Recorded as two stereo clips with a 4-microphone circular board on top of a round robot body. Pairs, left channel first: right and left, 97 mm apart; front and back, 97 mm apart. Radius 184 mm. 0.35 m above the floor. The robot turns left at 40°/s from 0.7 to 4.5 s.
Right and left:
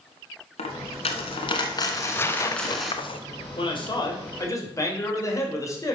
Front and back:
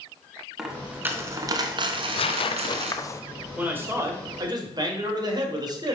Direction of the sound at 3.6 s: 105° right.